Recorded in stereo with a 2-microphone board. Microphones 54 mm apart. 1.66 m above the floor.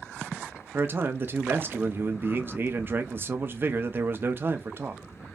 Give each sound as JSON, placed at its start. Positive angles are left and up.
{"t": 0.7, "sound": "a man speaking", "side_deg": -45, "distance_m": 0.6}